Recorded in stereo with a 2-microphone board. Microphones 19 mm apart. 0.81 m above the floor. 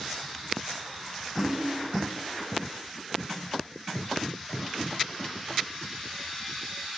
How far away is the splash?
About 2.5 m.